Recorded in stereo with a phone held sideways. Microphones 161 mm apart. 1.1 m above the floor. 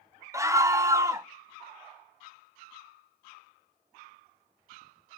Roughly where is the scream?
Centre.